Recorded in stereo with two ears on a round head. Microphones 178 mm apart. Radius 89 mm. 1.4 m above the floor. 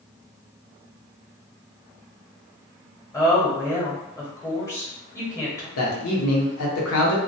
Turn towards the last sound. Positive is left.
turn(degrees=80)